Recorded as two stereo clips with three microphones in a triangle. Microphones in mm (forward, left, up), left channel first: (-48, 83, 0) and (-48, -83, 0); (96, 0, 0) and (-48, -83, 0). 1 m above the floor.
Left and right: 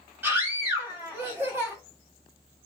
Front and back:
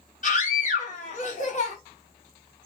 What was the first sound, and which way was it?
A scream, 10° right.